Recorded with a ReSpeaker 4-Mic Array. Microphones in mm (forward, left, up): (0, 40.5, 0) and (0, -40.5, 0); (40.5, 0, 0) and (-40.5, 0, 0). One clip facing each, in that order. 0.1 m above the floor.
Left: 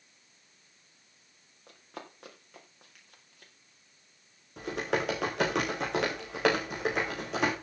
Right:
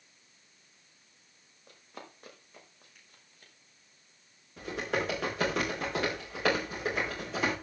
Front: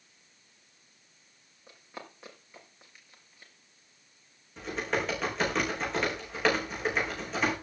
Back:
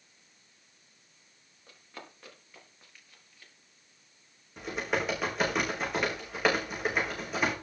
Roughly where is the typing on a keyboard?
Left.